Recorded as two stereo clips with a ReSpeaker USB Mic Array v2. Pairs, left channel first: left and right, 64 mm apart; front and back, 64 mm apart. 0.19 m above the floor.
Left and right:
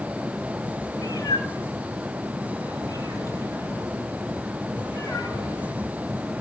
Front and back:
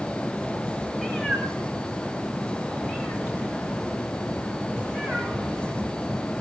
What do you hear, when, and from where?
1.0 s a cat meowing: 95° left, 5 m; by 5.8 s 125° left, 7.5 m